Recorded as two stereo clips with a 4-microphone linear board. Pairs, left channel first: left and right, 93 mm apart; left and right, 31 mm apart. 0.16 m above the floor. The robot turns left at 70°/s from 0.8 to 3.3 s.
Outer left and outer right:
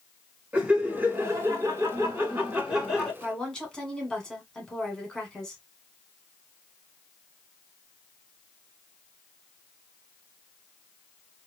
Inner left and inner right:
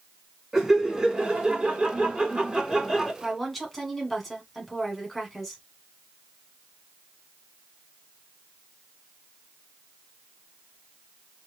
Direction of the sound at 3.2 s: 10° left (ahead or behind).